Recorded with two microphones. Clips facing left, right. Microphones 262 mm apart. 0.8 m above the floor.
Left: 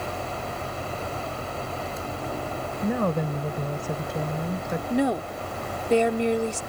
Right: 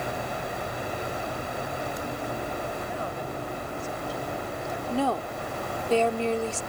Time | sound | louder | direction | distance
2.8 | a woman speaking | left 9 dB | 70° left (ahead or behind) | ?
4.9 | a woman speaking | left 4 dB | 20° left (ahead or behind) | ?